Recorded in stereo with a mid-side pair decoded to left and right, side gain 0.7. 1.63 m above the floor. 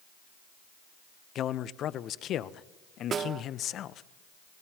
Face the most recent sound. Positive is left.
turn(degrees=-35)